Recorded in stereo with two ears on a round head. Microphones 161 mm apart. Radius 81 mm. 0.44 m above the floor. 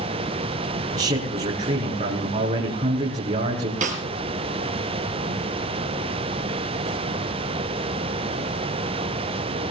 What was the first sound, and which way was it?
A man speaking, 40° right (ahead or behind).